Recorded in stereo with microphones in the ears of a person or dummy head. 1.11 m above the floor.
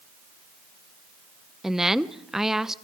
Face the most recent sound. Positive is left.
turn(degrees=-5)  # may be behind; listen again after turning